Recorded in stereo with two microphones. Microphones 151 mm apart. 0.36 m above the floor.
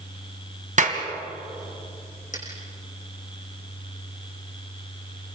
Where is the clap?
55° right (ahead or behind), 2.5 m.